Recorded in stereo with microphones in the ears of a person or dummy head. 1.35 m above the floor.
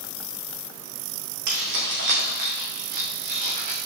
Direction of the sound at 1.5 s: 55° right (ahead or behind).